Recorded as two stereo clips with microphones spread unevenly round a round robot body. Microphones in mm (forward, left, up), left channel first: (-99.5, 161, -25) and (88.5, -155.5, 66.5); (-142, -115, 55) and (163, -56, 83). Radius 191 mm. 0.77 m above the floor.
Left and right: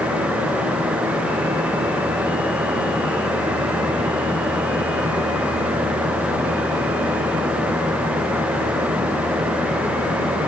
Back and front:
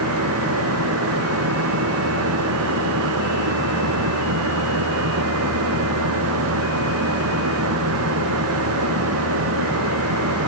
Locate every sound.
Only background noise.